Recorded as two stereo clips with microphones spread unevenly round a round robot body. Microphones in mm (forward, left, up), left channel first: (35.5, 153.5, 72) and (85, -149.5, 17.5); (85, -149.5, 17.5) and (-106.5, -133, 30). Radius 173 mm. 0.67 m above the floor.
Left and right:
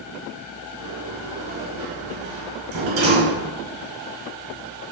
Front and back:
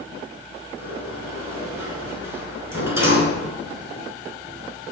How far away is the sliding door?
About 4 m.